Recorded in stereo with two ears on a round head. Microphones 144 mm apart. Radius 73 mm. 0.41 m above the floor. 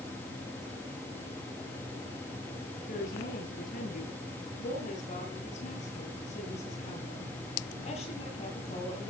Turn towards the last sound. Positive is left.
turn(degrees=40)  # may be behind; listen again after turning